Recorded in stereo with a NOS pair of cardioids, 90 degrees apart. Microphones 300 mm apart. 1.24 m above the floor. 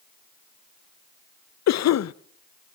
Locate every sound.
1.7 s a cough: 60° left, 1.1 m